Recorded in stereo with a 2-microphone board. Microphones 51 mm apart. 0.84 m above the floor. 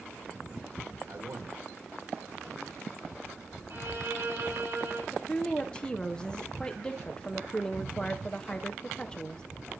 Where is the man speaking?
65° right (ahead or behind), 2 m.